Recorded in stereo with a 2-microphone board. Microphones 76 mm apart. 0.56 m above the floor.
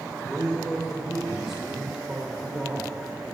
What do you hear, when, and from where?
0.2 s a man speaking: 5° right (ahead or behind), 2 m